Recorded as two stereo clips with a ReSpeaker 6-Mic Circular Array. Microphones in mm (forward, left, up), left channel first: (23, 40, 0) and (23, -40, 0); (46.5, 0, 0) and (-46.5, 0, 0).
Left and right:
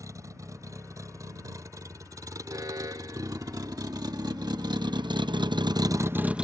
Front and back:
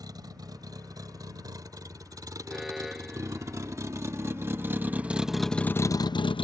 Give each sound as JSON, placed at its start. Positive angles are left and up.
{"t": 0.0, "sound": "a vehicle", "azimuth_deg": -135}
{"t": 2.5, "sound": "an alarm", "azimuth_deg": -90}